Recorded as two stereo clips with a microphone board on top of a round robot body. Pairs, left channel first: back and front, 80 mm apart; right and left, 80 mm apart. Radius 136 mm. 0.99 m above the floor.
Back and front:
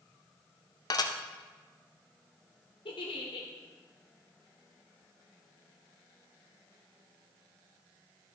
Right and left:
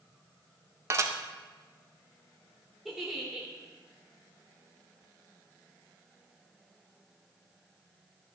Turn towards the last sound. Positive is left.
turn(degrees=175)